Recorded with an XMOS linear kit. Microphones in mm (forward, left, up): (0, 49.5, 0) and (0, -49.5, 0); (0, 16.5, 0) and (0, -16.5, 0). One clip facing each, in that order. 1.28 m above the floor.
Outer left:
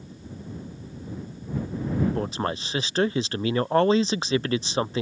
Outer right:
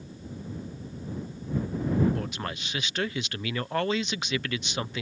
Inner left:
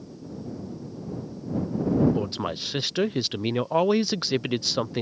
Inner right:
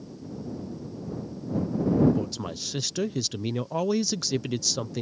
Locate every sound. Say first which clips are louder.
2.1 s a man speaking: outer left 6 dB, inner left 3 dB; 30° left (ahead or behind)